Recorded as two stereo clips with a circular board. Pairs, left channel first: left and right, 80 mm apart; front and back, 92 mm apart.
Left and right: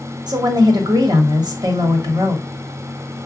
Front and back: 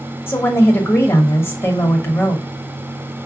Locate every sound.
0.3 s a woman speaking: 65° right, 1.0 m